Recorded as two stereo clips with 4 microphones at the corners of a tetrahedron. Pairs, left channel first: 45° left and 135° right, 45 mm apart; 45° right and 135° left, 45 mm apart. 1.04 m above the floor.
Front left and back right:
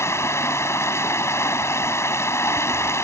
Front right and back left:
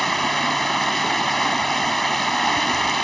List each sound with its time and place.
0.0 s running water: 40° left